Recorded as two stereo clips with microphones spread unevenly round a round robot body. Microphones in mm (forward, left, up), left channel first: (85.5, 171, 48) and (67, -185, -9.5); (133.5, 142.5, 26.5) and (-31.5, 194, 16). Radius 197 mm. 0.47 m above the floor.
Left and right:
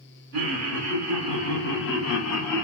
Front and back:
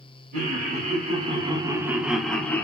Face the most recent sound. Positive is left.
turn(degrees=60)